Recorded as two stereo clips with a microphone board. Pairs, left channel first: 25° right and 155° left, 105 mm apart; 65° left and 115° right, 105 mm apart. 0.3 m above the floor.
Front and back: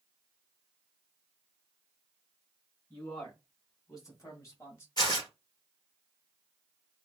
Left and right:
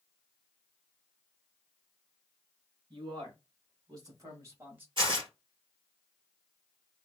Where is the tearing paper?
70° right, 1.7 m.